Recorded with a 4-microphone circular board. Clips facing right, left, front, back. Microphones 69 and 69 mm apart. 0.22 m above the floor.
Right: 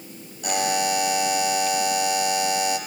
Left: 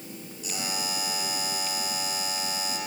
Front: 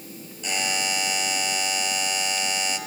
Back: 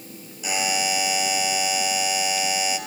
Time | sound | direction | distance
0.4 | a buzzer | 100° right | 2 m